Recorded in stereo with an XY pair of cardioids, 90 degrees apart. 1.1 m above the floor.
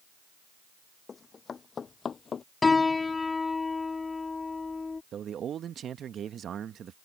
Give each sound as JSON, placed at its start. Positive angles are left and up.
{"t": 1.1, "sound": "running footsteps", "azimuth_deg": 45}
{"t": 2.6, "sound": "a piano", "azimuth_deg": 30}
{"t": 5.1, "sound": "a man speaking", "azimuth_deg": -65}